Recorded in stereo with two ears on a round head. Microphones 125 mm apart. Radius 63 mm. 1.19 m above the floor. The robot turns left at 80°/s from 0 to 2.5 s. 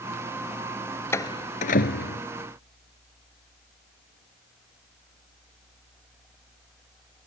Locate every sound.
1.1 s a door slam: 20° left (ahead or behind); by 2.2 s 75° left (ahead or behind)